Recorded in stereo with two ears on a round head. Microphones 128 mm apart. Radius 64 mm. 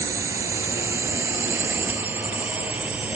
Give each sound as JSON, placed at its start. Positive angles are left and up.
{"t": 0.0, "sound": "a drone", "side_deg": -20}